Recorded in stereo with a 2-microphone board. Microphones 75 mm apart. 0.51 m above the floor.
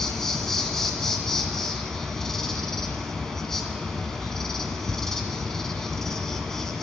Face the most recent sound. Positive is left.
turn(degrees=5)  # may be behind; listen again after turning